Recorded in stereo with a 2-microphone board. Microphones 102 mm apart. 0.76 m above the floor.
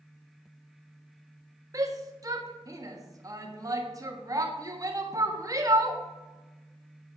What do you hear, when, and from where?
1.7 s a shout: 35° right (ahead or behind), 1.4 m